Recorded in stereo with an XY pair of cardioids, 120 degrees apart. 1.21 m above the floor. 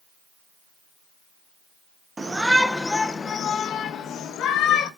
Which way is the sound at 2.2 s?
15° right.